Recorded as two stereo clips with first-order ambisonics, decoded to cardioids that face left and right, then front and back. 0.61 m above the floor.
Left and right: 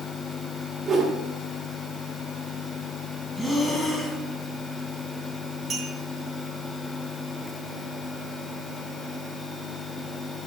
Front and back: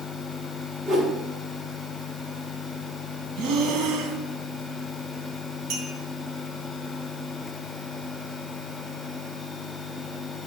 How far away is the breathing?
About 1.2 m.